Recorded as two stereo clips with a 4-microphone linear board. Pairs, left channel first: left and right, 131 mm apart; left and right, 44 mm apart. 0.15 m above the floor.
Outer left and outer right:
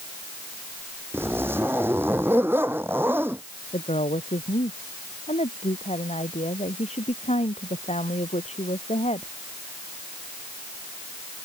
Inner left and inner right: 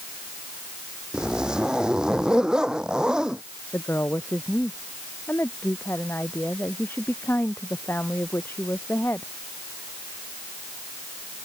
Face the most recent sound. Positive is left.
turn(degrees=60)  # may be behind; listen again after turning